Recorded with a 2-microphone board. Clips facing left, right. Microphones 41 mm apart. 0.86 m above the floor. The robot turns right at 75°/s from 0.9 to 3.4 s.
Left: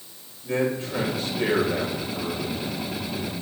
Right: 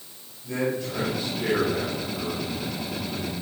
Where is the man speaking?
40° left, 4 m; by 3.3 s 140° right, 4 m.